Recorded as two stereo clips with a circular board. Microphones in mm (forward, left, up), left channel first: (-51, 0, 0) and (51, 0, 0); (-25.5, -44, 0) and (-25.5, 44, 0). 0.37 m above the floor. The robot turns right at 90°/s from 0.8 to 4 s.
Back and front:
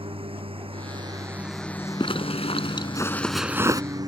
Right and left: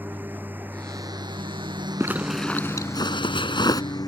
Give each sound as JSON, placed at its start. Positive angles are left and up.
{"t": 0.0, "sound": "a lawn mower", "azimuth_deg": 20}
{"t": 2.0, "sound": "a zipper", "azimuth_deg": 150}